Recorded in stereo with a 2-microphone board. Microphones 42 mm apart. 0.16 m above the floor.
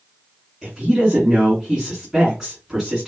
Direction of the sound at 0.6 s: 10° right (ahead or behind).